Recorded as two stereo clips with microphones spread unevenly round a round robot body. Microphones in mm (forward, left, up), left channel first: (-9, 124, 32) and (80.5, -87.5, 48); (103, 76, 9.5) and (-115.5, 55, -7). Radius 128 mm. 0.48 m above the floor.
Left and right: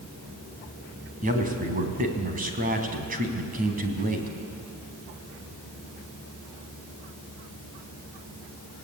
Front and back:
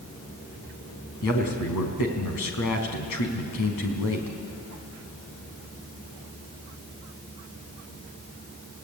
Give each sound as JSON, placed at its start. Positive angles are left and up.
{"t": 1.2, "sound": "a man speaking", "azimuth_deg": -10, "distance_m": 4.0}